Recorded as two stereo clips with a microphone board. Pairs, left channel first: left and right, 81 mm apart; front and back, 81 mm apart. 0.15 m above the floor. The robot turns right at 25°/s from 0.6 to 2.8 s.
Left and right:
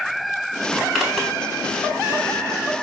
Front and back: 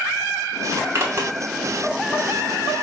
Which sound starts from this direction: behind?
A zipper, at 0.7 s.